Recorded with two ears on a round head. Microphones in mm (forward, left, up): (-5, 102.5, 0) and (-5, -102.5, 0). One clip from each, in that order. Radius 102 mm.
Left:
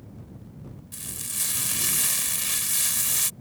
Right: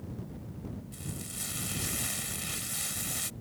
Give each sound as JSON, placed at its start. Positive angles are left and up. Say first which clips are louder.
{"t": 0.9, "sound": "frying", "louder": "left 11 dB", "side_deg": 50}